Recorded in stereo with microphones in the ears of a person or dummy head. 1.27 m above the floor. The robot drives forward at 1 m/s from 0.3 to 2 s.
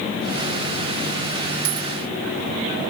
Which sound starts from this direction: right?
A dropped coin, at 1.6 s.